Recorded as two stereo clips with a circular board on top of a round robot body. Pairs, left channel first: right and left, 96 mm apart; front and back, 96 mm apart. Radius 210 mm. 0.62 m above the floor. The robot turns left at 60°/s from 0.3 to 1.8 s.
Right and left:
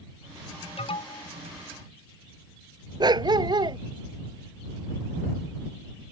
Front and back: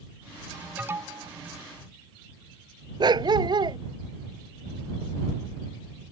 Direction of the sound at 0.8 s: 105° right.